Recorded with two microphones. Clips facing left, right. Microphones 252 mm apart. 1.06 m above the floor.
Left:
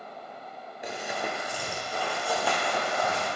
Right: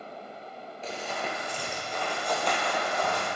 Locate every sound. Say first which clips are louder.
0.8 s running footsteps: left 1 dB; 15° left (ahead or behind), 1.0 m; by 3.3 s 5° left (ahead or behind), 2 m